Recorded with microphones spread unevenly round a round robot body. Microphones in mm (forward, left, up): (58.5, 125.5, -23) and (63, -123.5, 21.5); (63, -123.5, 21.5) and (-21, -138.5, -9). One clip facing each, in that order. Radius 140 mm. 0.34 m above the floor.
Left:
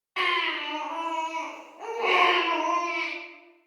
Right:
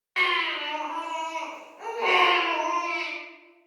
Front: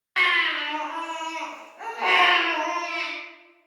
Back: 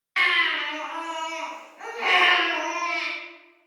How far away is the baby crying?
About 1.8 m.